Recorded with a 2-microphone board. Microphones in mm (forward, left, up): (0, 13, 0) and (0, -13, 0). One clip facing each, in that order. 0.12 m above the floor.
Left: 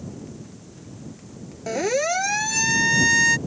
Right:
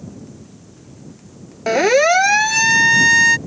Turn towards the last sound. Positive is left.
turn(degrees=-20)  # may be behind; listen again after turning